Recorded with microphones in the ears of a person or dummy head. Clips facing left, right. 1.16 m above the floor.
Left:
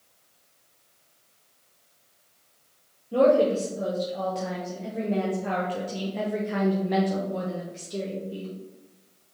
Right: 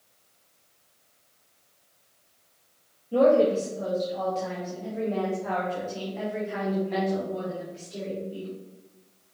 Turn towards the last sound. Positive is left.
turn(degrees=60)  # may be behind; listen again after turning